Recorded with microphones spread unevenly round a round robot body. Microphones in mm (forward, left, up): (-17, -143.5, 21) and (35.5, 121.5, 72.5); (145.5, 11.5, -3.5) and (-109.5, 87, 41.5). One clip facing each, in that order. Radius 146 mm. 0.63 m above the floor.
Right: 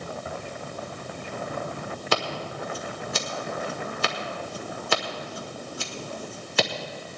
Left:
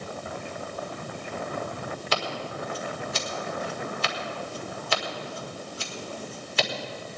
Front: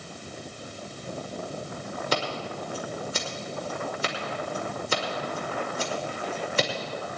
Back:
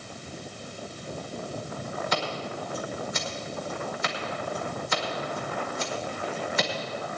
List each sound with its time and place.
2.1 s scissors: 70° right, 1.7 m